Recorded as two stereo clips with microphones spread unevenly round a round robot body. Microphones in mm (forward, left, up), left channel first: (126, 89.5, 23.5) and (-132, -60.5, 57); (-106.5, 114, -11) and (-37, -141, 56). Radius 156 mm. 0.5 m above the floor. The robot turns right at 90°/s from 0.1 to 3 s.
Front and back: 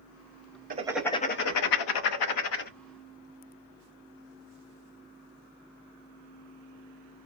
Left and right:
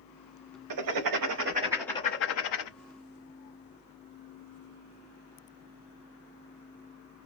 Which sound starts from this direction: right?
Writing, at 0.7 s.